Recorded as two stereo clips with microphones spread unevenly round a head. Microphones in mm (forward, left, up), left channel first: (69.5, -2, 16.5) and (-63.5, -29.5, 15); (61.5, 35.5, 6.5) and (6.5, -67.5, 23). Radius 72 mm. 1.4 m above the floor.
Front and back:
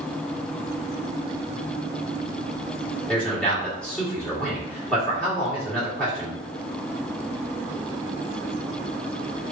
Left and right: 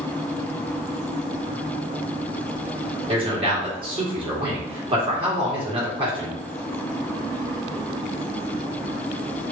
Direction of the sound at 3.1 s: 70° right.